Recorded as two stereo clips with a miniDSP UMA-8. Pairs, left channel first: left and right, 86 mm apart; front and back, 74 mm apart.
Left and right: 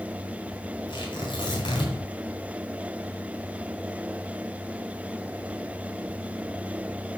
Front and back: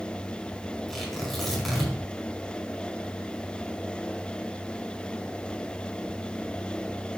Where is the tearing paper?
85° left, 4.5 m.